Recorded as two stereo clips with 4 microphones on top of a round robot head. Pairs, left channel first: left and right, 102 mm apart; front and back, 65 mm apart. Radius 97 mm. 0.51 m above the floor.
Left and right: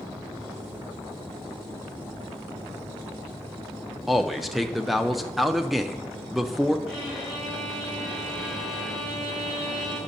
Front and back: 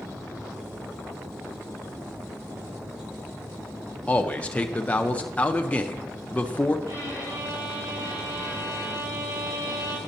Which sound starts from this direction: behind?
A violin, at 6.9 s.